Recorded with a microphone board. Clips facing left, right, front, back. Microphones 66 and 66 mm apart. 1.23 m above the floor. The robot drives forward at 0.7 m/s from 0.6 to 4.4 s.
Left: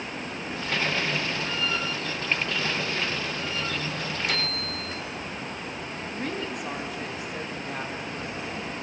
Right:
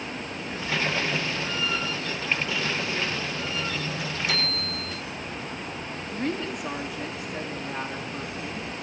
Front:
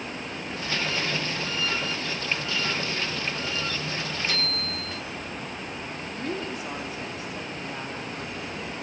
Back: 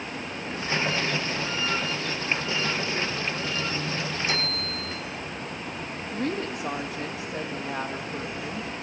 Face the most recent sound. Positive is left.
turn(degrees=180)